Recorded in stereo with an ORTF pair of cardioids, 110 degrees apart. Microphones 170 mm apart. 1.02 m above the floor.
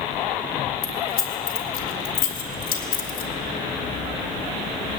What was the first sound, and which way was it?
Keys jangling, 65° left.